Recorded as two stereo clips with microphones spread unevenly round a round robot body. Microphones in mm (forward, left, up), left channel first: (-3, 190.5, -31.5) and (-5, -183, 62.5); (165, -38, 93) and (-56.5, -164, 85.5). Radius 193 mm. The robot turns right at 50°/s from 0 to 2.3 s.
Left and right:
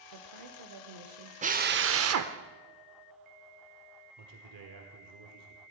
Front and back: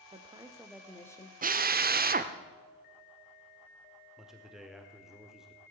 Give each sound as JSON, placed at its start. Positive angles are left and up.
{"t": 0.1, "sound": "a woman speaking", "azimuth_deg": -100, "distance_m": 1.3}
{"t": 1.4, "sound": "a drill", "azimuth_deg": -170, "distance_m": 0.8}
{"t": 4.2, "sound": "a man speaking", "azimuth_deg": -65, "distance_m": 1.5}